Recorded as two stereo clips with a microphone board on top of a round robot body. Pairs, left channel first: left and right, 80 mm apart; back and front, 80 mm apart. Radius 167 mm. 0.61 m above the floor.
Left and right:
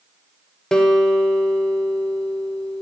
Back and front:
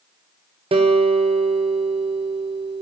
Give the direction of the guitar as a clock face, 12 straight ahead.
12 o'clock.